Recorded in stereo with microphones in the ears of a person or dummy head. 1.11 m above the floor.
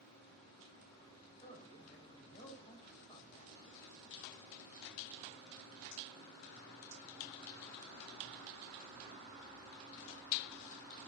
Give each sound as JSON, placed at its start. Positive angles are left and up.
{"t": 1.4, "sound": "a man speaking", "side_deg": 35, "distance_m": 4.5}